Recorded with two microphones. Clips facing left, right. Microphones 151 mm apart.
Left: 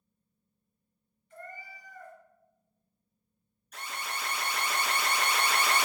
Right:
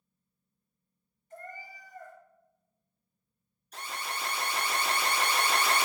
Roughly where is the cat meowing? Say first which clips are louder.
Right 1 dB; right.